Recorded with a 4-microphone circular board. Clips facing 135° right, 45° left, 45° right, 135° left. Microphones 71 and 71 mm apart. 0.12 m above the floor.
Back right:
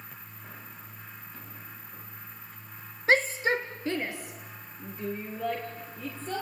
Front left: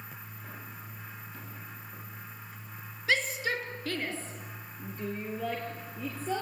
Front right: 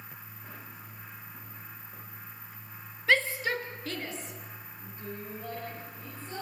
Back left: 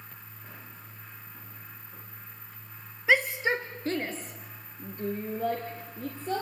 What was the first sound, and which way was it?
A shout, 155° right.